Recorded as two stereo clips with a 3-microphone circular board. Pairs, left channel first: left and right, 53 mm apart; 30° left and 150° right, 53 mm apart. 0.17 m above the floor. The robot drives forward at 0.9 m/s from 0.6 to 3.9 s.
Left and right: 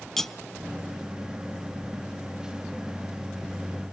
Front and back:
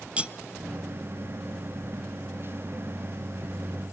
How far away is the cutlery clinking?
About 0.7 m.